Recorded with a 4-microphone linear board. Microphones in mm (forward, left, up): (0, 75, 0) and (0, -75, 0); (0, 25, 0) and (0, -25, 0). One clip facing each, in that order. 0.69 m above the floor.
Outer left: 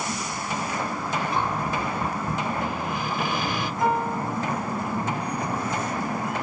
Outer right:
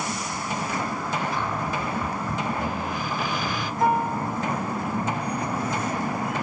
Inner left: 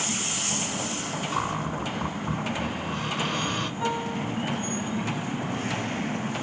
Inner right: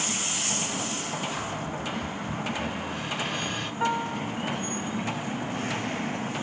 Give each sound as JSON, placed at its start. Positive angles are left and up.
{"t": 1.3, "sound": "a cupboard door", "side_deg": 60, "distance_m": 2.5}
{"t": 3.8, "sound": "a piano", "side_deg": -40, "distance_m": 1.1}